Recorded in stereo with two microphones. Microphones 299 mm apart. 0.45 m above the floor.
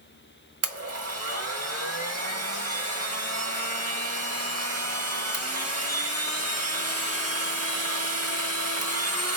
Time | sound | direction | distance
0.6 | a blender | 55° right (ahead or behind) | 0.8 m